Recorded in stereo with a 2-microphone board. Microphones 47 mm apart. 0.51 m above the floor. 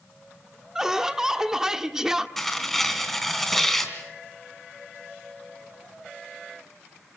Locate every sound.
0.8 s laughter: 10° right (ahead or behind), 1.3 m
2.4 s tearing paper: 5° left (ahead or behind), 3 m